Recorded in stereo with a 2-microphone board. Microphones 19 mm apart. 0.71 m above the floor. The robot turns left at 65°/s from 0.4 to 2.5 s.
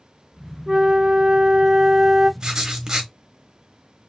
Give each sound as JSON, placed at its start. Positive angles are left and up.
{"t": 0.7, "sound": "a flute", "azimuth_deg": -40, "distance_m": 1.2}
{"t": 2.4, "sound": "writing", "side_deg": -35, "distance_m": 1.1}